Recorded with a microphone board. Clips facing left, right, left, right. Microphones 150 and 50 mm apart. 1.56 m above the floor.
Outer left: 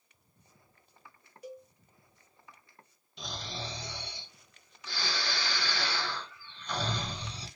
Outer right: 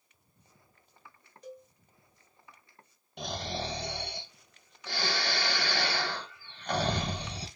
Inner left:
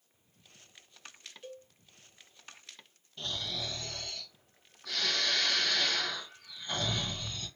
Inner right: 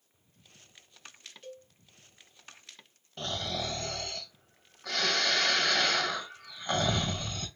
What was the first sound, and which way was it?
A cowbell, 10° left (ahead or behind).